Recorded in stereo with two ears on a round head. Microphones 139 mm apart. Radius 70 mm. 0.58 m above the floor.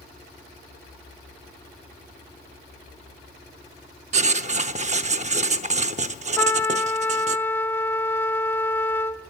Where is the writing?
45° right (ahead or behind), 0.8 m.